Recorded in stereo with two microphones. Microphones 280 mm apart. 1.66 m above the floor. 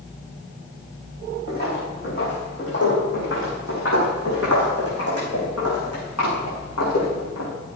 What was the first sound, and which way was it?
Footsteps, 30° left (ahead or behind).